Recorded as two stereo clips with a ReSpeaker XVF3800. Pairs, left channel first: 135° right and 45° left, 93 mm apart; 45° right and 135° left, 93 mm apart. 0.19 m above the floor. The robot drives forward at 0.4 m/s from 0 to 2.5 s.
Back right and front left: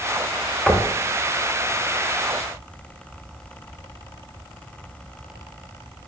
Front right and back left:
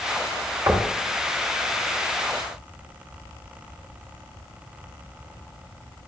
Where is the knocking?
135° left, 0.8 m; by 0.9 s 140° left, 0.8 m.